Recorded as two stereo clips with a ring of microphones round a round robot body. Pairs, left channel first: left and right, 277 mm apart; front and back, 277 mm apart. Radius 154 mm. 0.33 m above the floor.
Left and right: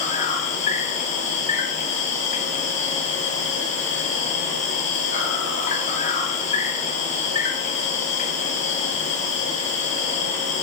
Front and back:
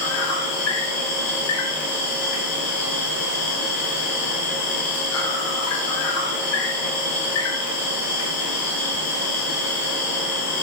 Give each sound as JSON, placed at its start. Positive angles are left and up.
{"t": 0.0, "sound": "an insect", "azimuth_deg": 25, "distance_m": 2.0}